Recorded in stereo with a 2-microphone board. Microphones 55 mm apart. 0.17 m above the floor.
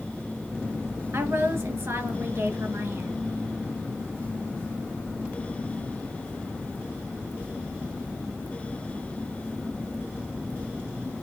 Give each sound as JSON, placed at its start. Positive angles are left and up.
{"t": 1.1, "sound": "a woman speaking", "side_deg": -60, "distance_m": 2.5}